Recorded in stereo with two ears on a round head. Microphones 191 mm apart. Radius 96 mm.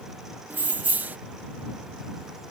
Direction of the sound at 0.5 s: 10° right (ahead or behind).